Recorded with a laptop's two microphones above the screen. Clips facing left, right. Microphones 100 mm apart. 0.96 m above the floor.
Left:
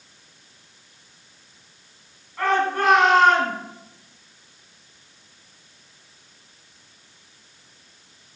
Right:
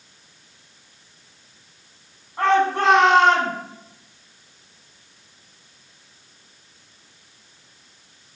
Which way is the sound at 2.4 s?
25° right (ahead or behind).